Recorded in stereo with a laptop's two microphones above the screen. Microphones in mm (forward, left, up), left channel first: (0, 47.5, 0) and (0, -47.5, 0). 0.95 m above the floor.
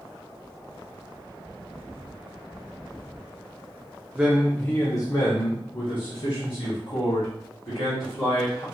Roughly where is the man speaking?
Centre.